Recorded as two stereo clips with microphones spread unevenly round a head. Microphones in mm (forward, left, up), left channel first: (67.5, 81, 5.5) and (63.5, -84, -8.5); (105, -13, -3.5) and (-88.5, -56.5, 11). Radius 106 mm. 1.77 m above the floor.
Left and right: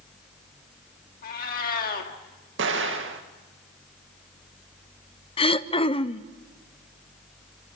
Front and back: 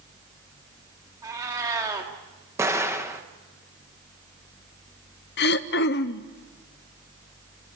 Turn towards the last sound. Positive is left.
turn(degrees=45)